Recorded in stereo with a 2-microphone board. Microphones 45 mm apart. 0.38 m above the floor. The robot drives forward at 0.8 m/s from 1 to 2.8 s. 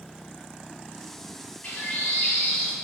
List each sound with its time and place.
1.6 s a bird: 35° left (ahead or behind), 1.6 m; by 2.7 s 30° left (ahead or behind), 1.8 m